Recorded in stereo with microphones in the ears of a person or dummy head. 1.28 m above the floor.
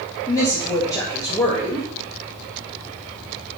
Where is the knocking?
No knocking in this recording.